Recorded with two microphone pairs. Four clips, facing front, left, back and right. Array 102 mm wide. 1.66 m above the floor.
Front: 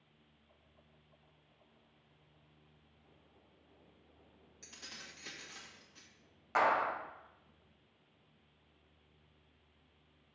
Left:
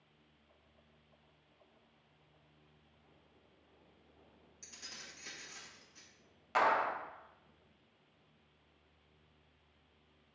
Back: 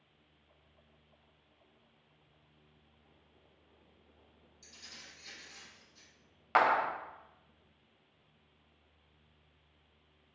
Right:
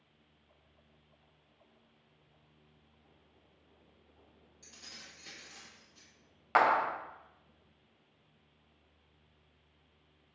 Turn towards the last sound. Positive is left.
turn(degrees=-140)